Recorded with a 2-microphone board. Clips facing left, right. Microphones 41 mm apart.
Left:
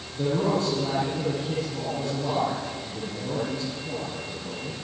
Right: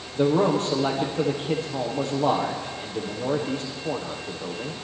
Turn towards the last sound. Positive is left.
turn(degrees=-70)  # may be behind; listen again after turning